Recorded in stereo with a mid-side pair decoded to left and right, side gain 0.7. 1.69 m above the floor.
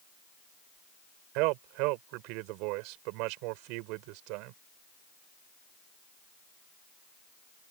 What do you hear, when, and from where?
1.4 s a man speaking: 70° right